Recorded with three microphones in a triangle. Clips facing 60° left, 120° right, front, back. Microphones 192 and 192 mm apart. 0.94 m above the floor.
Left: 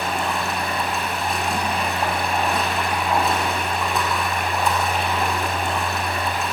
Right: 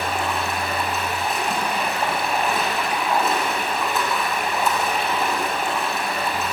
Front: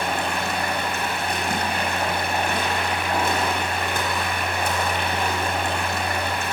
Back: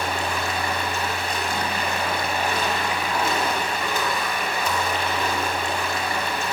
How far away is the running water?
About 6 m.